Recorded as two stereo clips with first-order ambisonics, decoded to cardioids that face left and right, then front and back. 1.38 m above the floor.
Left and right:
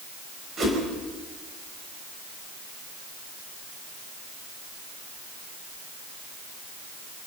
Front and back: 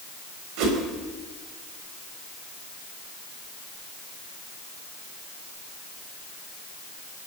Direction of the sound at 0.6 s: 155° right.